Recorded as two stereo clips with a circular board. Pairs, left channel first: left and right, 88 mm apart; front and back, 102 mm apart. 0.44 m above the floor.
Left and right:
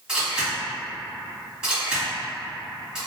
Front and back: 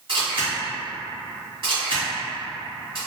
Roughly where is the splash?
No splash in this recording.